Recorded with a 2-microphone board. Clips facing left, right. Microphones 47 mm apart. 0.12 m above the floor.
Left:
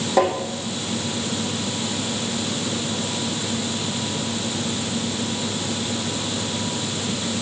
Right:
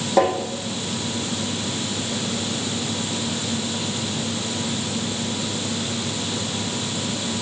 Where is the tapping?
5° right (ahead or behind), 2.5 m.